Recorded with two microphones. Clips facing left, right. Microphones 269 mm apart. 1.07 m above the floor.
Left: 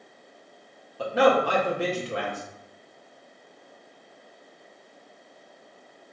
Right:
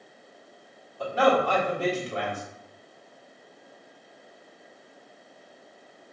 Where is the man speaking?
75° left (ahead or behind), 1.4 m.